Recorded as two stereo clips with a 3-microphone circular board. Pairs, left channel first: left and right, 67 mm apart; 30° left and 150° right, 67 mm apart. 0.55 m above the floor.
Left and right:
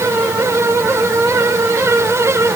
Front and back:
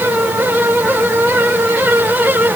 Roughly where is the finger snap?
I don't hear a finger snap.